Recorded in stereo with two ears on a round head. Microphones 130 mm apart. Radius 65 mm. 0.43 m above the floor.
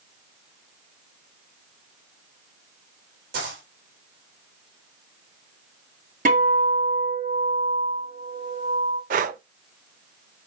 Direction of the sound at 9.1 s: 60° right (ahead or behind).